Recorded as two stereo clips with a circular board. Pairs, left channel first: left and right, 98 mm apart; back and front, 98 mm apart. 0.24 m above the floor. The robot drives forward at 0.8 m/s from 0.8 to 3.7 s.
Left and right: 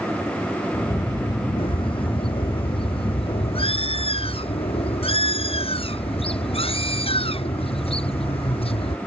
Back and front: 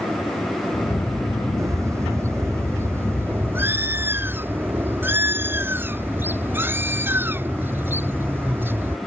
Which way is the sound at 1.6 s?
60° left.